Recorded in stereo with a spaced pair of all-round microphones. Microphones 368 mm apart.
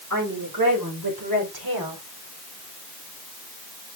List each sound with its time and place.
0.1 s a woman speaking: 65° right (ahead or behind), 5 m; by 2.0 s 80° right, 3.5 m